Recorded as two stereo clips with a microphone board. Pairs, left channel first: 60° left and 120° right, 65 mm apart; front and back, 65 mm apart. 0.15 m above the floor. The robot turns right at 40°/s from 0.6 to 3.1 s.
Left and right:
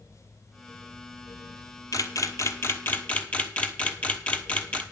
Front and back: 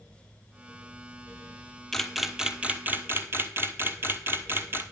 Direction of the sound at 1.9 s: 80° left.